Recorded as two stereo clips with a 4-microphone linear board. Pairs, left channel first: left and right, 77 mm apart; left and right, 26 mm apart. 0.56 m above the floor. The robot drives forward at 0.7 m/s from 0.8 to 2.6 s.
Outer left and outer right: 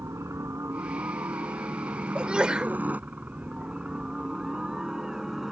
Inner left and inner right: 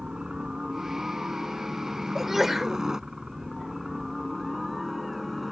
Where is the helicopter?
40° right (ahead or behind); by 5.5 s 5° right (ahead or behind).